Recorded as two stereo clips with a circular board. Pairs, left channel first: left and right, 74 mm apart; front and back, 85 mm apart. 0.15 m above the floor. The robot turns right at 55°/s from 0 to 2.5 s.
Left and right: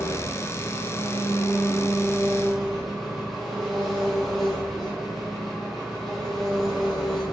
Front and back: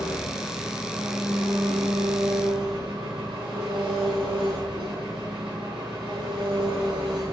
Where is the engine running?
40° left, 2.5 m; by 7.3 s 175° left, 2.5 m.